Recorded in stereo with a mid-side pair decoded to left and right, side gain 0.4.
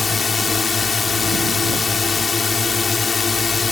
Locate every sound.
0.0 s a drone: 40° left